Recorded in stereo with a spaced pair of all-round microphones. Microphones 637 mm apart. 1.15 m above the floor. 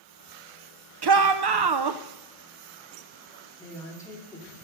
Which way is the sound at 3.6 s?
5° left (ahead or behind).